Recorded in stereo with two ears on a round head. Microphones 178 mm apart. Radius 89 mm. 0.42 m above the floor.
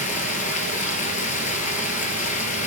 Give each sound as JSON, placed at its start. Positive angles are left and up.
{"t": 0.0, "sound": "running water", "side_deg": 40, "distance_m": 1.6}